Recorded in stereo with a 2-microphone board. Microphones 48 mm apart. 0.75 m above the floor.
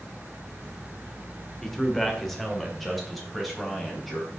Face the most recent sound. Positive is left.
turn(degrees=0)  # may be behind; listen again after turning